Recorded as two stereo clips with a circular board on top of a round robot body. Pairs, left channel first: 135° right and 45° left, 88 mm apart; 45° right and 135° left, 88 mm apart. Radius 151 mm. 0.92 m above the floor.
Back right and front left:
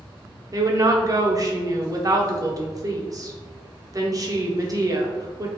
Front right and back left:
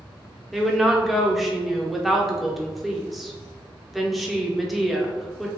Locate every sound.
0.5 s a woman speaking: 45° left, 0.8 m